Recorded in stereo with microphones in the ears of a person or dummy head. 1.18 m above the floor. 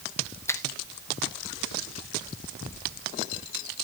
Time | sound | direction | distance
0.5 | a finger snap | 15° left (ahead or behind) | 0.9 m